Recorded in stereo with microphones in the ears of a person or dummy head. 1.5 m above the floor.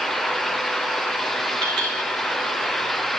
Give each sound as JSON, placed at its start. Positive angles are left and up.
{"t": 1.6, "sound": "a clink", "side_deg": -35, "distance_m": 1.7}